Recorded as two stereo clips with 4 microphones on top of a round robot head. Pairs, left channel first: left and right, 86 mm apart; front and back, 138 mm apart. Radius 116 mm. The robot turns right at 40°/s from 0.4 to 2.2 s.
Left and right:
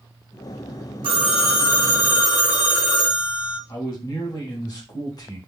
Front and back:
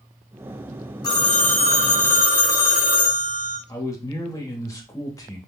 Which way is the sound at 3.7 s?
60° left.